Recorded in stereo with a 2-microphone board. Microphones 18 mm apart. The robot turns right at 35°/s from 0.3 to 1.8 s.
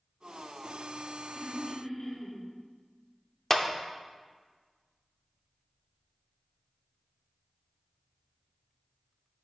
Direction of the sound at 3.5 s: 15° left (ahead or behind).